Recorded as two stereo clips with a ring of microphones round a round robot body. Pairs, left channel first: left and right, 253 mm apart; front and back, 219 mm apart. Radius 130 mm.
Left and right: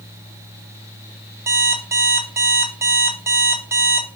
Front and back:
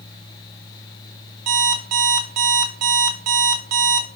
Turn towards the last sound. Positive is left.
turn(degrees=-170)